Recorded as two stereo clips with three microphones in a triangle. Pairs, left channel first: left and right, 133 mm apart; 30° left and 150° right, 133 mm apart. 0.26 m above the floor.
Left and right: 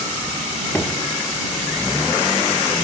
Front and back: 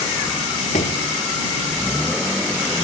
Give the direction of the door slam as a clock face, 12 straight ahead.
11 o'clock.